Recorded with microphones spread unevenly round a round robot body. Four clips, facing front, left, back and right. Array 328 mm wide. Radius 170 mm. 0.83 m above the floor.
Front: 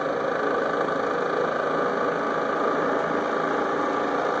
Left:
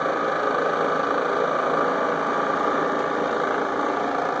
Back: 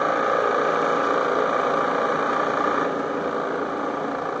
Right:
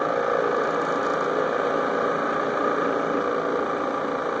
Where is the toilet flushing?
I don't hear a toilet flushing.